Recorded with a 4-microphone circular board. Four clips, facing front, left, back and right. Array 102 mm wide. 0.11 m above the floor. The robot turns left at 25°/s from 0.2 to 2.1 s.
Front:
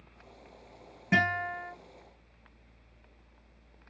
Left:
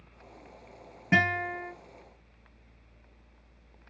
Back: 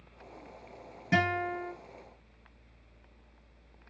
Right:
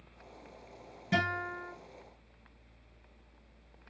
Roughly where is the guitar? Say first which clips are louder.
Left 5 dB, even; left.